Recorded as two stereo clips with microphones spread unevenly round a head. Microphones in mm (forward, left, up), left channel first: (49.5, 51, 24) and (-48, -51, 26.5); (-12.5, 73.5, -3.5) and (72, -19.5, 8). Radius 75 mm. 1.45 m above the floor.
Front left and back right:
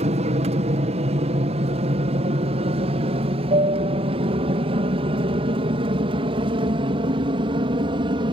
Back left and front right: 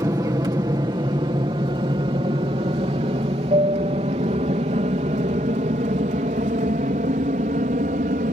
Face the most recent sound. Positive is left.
turn(degrees=-80)